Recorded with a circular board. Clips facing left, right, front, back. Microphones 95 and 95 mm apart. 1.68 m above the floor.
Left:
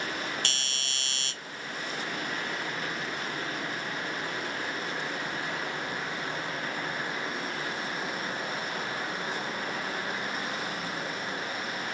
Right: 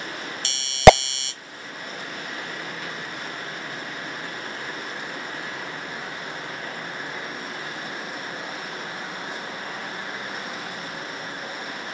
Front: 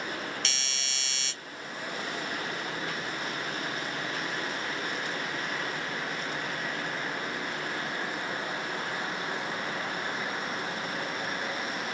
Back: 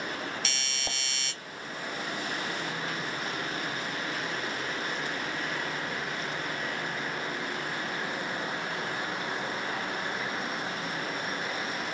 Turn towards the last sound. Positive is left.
turn(degrees=95)